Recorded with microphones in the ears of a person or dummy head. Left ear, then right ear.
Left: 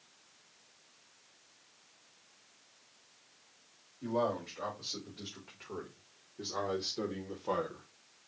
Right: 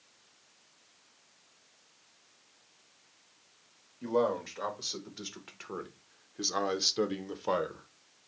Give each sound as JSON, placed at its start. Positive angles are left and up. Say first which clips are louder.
{"t": 4.0, "sound": "a man speaking", "louder": "right 4 dB", "side_deg": -60, "distance_m": 2.0}